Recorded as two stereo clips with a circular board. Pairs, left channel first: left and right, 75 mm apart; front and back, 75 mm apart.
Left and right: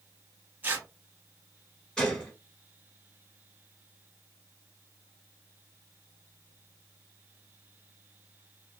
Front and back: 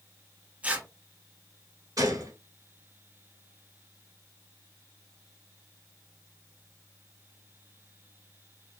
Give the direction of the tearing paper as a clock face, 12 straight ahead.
4 o'clock.